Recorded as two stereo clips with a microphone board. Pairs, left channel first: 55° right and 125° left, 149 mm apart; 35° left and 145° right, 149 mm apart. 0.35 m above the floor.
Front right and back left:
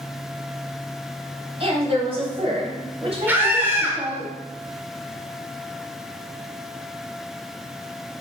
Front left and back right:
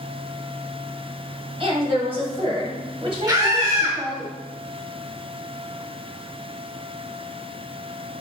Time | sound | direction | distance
1.6 | a woman speaking | 170° left | 1.8 m
3.3 | a scream | 175° right | 0.9 m